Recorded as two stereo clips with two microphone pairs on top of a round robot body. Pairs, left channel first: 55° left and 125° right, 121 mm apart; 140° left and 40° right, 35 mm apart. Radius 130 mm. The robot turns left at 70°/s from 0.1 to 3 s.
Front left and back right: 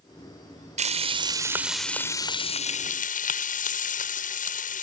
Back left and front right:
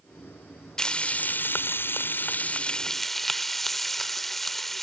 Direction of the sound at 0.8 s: 145° right.